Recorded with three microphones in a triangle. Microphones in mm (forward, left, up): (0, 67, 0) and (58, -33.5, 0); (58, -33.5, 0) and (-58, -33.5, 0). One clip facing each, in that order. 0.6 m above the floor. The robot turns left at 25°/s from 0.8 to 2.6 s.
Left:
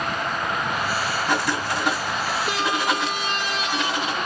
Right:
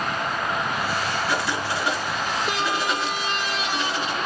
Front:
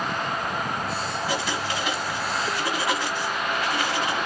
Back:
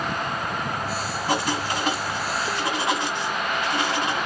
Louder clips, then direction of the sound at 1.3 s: Left 2 dB, back 6 dB; 150° left.